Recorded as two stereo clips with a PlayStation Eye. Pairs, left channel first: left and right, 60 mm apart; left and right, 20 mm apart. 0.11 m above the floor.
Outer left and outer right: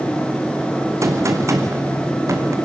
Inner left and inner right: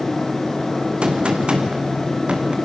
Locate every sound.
1.0 s a gunshot: 50° right (ahead or behind), 2.5 m